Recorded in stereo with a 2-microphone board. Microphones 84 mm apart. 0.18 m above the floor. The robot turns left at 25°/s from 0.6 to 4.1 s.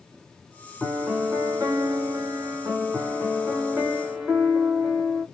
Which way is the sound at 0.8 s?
45° right.